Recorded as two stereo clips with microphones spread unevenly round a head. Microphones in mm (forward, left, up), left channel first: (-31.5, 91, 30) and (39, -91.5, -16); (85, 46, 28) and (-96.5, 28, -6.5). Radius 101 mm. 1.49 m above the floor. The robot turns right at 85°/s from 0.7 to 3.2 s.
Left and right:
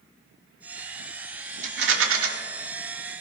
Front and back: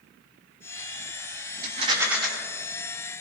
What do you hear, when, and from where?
1.6 s a rattle: 125° right, 1.5 m; by 2.3 s 70° right, 1.5 m